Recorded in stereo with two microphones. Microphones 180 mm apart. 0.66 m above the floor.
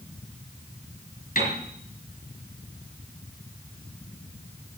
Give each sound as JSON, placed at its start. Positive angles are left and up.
{"t": 1.4, "sound": "a piano", "side_deg": 45, "distance_m": 4.5}